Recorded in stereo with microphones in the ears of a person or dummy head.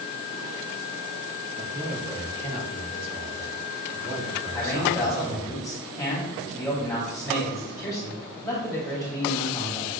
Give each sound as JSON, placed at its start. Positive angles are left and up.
{"t": 1.6, "sound": "a man speaking", "side_deg": -50, "distance_m": 2.0}
{"t": 4.5, "sound": "a man speaking", "side_deg": 5, "distance_m": 2.5}